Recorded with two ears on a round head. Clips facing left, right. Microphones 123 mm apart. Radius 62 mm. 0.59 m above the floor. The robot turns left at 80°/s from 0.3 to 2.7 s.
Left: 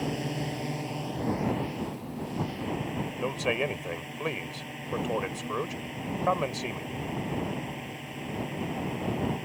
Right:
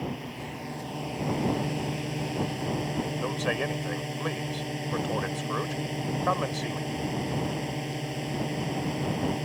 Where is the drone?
55° left; by 9.4 s 135° right.